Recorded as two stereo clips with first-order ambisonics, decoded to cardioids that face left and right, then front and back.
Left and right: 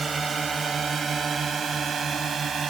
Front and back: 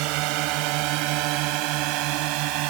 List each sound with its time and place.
0.0 s a drone: 165° right; by 2.7 s 160° right